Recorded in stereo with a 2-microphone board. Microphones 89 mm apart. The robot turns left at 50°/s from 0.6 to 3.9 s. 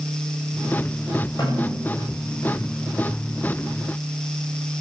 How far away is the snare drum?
About 9 m.